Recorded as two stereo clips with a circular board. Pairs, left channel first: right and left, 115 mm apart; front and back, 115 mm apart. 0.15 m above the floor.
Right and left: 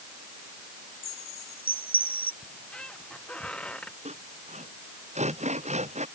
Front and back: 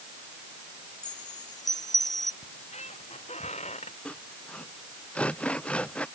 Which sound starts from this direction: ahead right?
A chime, at 1.0 s.